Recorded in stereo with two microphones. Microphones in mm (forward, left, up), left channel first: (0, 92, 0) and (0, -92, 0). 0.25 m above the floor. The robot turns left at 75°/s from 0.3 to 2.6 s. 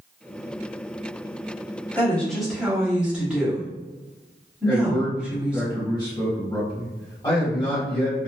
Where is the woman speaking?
10° left (ahead or behind), 1.0 m; by 5.7 s 5° right (ahead or behind), 1.0 m.